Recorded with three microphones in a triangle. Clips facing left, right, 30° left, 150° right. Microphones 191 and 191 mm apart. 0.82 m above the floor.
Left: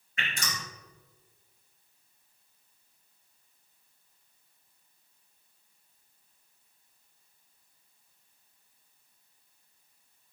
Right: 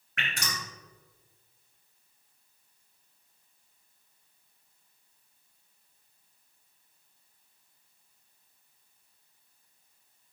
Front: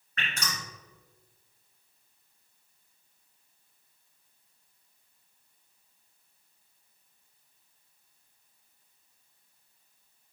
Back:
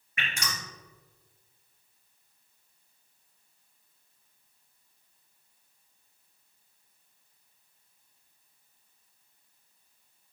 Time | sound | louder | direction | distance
0.2 | dripping | even, even | 70° right | 3.5 m